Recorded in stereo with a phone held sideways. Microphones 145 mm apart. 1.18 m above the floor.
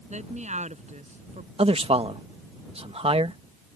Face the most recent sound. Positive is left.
turn(degrees=-45)  # may be behind; listen again after turning